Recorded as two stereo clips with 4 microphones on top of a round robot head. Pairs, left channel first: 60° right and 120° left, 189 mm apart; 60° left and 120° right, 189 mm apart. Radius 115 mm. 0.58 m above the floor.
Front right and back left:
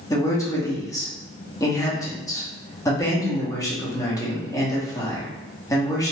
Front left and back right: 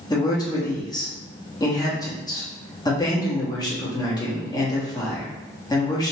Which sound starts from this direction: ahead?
A man speaking, at 0.1 s.